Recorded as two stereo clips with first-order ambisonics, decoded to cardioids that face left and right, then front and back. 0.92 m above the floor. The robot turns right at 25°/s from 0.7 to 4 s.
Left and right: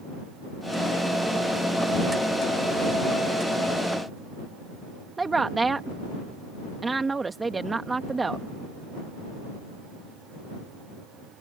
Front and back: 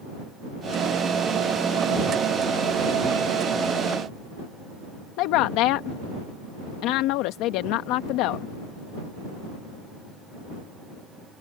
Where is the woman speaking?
15° right.